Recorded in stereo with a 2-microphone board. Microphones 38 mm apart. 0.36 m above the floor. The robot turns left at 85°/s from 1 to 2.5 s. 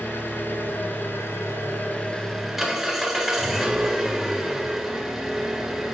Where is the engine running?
120° left, 1.5 m; by 6.0 s 5° right, 1.5 m.